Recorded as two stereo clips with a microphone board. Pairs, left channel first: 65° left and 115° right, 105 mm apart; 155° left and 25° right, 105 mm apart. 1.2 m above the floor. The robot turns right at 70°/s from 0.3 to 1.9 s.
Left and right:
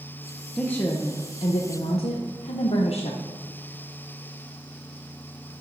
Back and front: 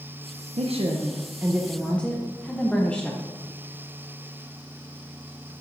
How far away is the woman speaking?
About 0.7 m.